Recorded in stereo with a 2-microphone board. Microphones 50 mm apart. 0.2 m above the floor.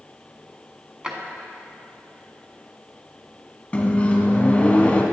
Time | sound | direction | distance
1.0 | a drawer | 20° right (ahead or behind) | 0.8 m
3.7 | a microwave | 20° left (ahead or behind) | 1.0 m